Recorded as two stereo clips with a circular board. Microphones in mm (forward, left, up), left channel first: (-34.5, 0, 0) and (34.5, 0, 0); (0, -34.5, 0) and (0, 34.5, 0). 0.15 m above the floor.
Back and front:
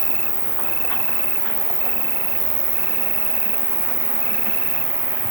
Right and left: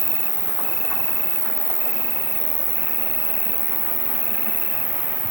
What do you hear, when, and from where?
0.0 s an insect: 130° right